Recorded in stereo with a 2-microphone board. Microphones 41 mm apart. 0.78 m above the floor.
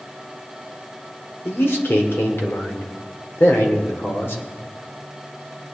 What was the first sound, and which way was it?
A man speaking, 60° left (ahead or behind).